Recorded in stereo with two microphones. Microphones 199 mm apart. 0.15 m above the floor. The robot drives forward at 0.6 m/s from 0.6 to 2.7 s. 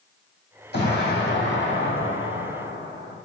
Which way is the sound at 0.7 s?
55° left (ahead or behind).